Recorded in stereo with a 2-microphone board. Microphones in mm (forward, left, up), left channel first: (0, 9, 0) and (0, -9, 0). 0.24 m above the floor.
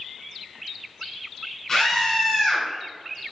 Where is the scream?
15° left (ahead or behind), 1.8 m.